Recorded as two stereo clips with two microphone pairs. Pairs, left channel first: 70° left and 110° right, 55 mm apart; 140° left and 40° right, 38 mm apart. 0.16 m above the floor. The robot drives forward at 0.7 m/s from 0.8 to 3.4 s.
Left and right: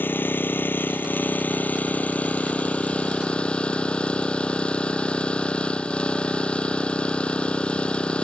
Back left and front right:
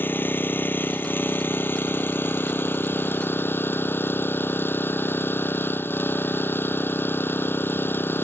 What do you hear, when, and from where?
0.0 s an engine running: 120° left; by 8.2 s 140° left